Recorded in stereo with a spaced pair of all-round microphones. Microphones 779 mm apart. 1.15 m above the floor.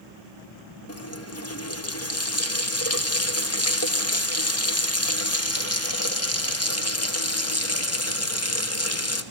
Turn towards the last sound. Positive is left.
turn(degrees=20)  # may be behind; listen again after turning